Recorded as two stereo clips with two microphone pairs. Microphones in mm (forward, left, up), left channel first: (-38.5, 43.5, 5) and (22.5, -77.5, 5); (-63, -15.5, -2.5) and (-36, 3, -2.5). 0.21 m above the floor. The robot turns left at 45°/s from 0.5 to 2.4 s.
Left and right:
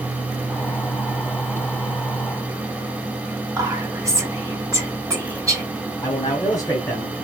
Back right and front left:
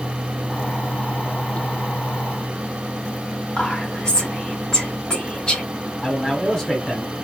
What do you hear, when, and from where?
3.6 s whispering: 105° right, 1.8 m
6.0 s a man speaking: 155° left, 1.6 m